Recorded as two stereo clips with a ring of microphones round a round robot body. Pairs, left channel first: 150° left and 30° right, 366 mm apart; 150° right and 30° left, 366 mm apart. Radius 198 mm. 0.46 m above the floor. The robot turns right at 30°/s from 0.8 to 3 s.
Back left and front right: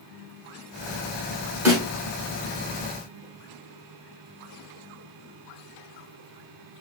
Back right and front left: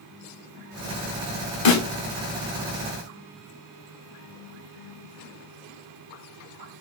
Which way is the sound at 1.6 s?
115° right.